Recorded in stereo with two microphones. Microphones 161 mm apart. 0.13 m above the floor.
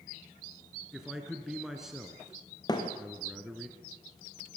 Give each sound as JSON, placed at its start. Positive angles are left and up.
{"t": 0.9, "sound": "a man speaking", "side_deg": -5, "distance_m": 1.8}
{"t": 2.7, "sound": "a thud", "side_deg": 25, "distance_m": 3.5}